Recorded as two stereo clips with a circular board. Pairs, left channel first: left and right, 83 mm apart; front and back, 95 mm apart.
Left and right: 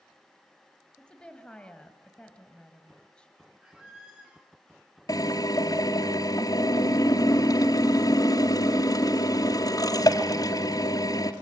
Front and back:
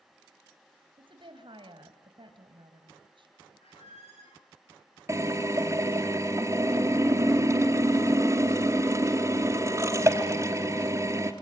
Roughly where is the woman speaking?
Behind.